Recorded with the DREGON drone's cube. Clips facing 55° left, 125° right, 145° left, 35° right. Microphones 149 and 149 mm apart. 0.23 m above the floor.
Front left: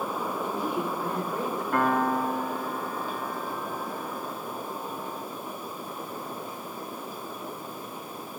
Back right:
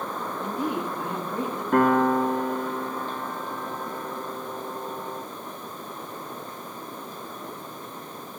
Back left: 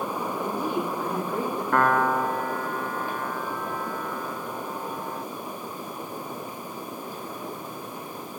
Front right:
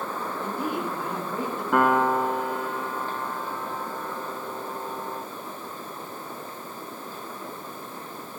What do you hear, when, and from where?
0.4 s a woman speaking: 115° right, 5 m
1.7 s a piano: 115° right, 0.8 m